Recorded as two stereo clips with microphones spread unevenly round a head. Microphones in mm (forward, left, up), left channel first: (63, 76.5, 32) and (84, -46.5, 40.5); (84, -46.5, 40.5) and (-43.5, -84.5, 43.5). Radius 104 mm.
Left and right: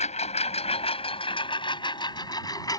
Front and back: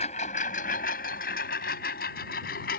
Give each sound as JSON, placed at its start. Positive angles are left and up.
{"t": 0.0, "sound": "a lawn mower", "azimuth_deg": 75}